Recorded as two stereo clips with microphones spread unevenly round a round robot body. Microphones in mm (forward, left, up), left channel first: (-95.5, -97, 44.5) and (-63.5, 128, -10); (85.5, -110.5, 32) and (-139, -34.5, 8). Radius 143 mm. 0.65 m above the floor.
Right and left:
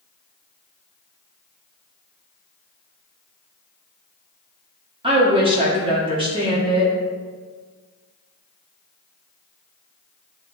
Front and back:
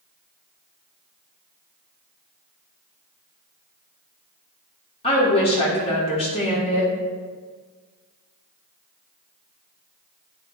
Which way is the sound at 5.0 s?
45° left.